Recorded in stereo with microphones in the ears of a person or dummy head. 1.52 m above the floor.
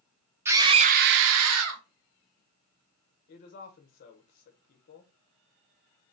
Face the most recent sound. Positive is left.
turn(degrees=55)  # may be behind; listen again after turning